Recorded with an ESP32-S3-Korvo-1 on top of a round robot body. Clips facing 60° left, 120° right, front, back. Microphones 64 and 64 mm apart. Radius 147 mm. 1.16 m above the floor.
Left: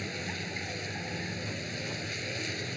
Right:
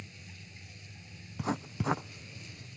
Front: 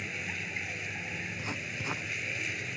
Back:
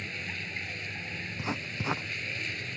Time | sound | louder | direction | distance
0.0 | a vehicle | left 15 dB, even | 85° left | ?
1.4 | writing | right 3 dB, back 3 dB | 115° right | ?